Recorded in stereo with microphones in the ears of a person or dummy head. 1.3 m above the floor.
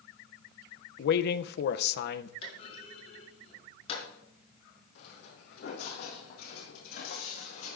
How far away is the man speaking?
About 0.7 m.